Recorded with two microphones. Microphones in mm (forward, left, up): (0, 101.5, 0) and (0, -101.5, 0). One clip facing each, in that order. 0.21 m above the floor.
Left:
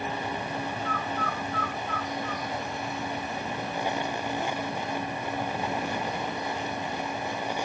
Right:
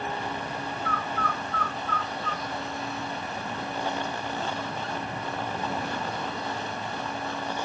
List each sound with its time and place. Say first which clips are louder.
0.8 s a bird: even; 60° right (ahead or behind), 1.1 m